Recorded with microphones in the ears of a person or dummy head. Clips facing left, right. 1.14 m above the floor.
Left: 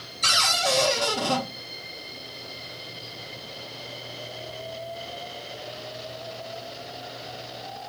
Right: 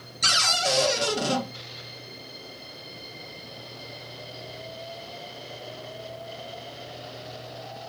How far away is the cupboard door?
About 0.6 m.